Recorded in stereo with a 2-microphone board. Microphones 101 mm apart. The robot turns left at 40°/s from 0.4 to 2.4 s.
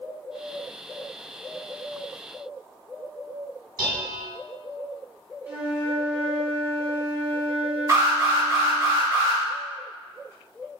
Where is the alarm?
40° right (ahead or behind), 1.9 m.